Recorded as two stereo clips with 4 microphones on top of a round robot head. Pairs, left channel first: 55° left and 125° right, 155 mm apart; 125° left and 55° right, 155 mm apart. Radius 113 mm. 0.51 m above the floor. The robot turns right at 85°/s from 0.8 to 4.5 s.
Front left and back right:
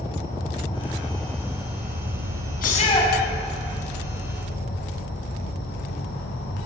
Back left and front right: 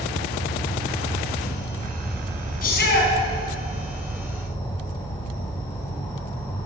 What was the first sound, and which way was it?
An insect, 100° left.